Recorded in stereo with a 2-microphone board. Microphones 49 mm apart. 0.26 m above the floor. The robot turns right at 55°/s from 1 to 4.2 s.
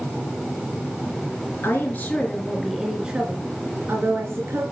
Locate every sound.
1.6 s a woman speaking: 120° left, 3.5 m; by 4.6 s 95° right, 3.5 m